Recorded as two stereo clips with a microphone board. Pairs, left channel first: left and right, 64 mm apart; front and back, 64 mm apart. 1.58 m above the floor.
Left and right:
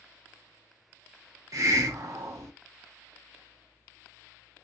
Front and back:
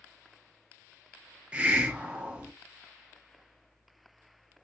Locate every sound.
1.5 s a hiss: 110° right, 0.6 m